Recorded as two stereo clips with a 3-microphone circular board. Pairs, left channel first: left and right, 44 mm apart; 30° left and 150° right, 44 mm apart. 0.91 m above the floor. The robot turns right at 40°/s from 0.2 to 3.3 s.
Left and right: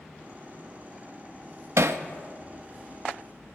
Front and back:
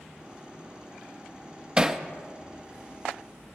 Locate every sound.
1.8 s hammering: 80° right, 0.6 m; by 2.0 s 70° right, 0.6 m